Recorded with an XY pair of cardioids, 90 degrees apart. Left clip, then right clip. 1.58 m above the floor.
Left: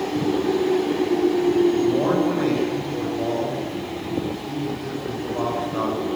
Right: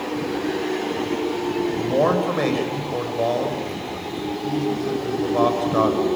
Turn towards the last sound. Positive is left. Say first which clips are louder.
# right 1 dB
turn(degrees=-65)